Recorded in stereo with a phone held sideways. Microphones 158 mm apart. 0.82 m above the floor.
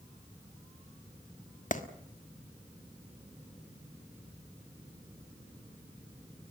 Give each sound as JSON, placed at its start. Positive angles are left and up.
{"t": 1.7, "sound": "a clap", "side_deg": 50, "distance_m": 1.6}